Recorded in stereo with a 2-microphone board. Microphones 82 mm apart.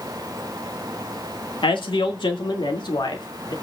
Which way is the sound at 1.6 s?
85° left.